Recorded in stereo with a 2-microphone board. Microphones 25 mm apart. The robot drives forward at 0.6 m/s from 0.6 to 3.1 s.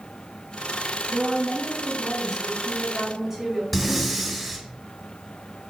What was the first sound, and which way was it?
A woman speaking, 20° right (ahead or behind).